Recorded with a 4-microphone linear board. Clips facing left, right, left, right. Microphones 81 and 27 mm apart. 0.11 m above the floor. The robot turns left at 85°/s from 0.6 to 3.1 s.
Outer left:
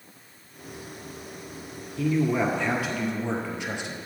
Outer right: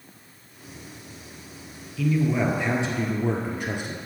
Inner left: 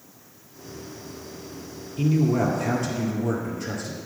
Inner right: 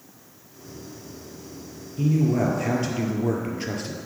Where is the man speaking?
40° left, 1.8 m; by 4.0 s 55° right, 1.8 m.